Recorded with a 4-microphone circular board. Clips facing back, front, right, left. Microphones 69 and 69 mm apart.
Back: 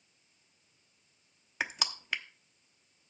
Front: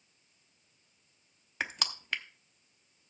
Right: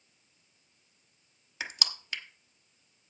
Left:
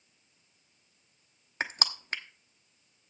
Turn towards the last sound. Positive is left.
turn(degrees=95)